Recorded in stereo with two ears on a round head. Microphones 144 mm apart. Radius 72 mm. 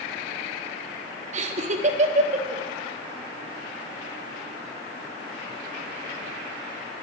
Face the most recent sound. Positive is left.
turn(degrees=-45)  # may be behind; listen again after turning